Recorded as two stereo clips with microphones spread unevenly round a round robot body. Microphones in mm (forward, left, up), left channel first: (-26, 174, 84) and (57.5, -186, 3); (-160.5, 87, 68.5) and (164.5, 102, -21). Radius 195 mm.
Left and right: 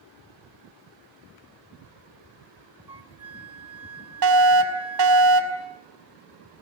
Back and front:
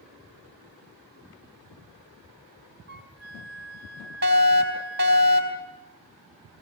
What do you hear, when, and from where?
2.9 s a flute: 10° right, 1.6 m
4.2 s a fire alarm: 50° right, 4.5 m